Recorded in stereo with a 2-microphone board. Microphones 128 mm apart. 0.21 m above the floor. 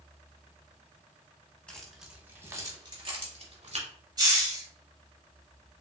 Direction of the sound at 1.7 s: 10° left (ahead or behind).